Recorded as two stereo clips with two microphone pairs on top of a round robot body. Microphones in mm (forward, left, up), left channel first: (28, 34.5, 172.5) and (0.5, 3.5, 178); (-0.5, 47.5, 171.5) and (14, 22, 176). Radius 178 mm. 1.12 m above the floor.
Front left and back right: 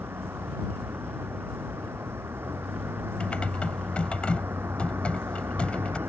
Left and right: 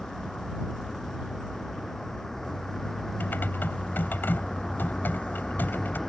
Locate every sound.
0.0 s a vehicle: 165° right
3.2 s typing on a keyboard: 120° left